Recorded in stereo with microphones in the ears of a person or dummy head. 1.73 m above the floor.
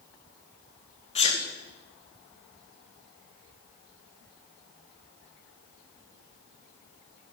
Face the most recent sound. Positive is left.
turn(degrees=35)  # may be behind; listen again after turning